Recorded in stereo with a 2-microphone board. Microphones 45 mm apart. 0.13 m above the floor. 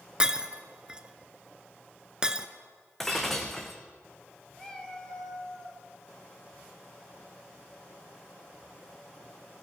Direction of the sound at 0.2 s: 20° right (ahead or behind).